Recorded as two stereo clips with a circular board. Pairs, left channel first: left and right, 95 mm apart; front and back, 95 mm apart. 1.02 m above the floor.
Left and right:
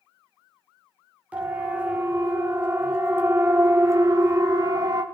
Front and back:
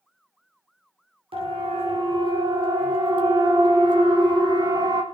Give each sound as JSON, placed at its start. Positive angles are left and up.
{"t": 1.3, "sound": "a siren", "azimuth_deg": -165, "distance_m": 5.5}